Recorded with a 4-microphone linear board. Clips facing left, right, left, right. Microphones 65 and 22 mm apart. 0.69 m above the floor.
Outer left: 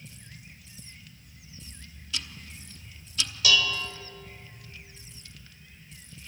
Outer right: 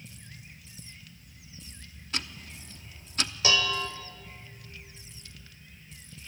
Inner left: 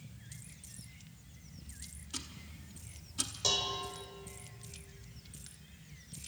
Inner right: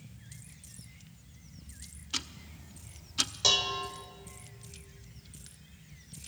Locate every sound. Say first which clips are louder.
2.1 s ticking: outer right 2 dB, inner right 8 dB; 45° right (ahead or behind), 0.9 m
3.4 s dishes clattering: outer left 1 dB, inner right 5 dB; 30° right (ahead or behind), 1.8 m